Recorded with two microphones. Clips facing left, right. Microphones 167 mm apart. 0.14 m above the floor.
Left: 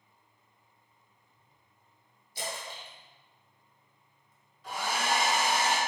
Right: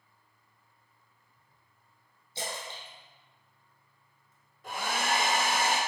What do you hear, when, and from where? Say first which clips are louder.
2.4 s a splash: even; 30° right (ahead or behind), 1.1 m
4.6 s a hair dryer: even; 60° right (ahead or behind), 1.3 m